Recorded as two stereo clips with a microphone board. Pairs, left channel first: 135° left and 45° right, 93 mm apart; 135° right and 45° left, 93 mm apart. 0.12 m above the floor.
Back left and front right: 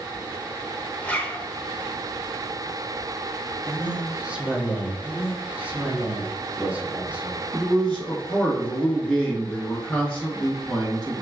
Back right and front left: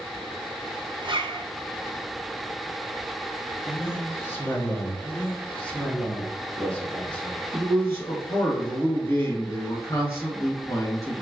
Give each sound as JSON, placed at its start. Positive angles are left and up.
{"t": 1.0, "sound": "a zipper", "azimuth_deg": 65, "distance_m": 0.7}
{"t": 3.6, "sound": "a man speaking", "azimuth_deg": -110, "distance_m": 1.2}
{"t": 5.0, "sound": "a man speaking", "azimuth_deg": -90, "distance_m": 1.0}
{"t": 7.5, "sound": "a man speaking", "azimuth_deg": -155, "distance_m": 1.6}